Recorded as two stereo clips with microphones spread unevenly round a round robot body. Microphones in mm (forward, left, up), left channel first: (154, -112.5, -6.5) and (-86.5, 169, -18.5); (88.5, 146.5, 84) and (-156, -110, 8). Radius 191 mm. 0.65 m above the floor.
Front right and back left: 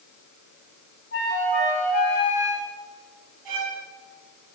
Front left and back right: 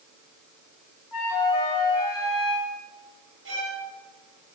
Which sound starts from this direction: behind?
A violin, at 3.5 s.